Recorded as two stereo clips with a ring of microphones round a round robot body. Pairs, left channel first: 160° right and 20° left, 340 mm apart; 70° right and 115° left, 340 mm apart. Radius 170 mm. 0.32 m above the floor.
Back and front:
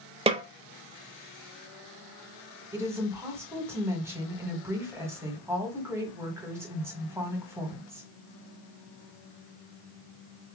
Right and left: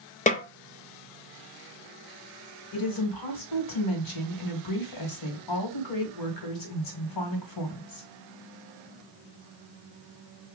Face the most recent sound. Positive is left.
turn(degrees=-60)